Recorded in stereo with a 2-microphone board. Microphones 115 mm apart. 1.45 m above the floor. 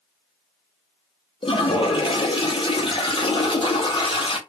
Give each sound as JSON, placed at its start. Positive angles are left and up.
{"t": 1.4, "sound": "a toilet flushing", "side_deg": 45, "distance_m": 0.7}